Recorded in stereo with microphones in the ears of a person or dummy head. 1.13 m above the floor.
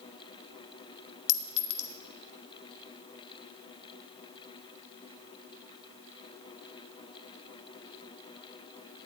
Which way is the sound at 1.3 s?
80° left.